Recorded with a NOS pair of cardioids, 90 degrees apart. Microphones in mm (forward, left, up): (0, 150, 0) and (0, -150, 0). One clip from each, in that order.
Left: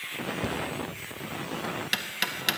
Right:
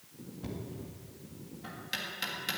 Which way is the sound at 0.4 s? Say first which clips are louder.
Left 13 dB; 55° left.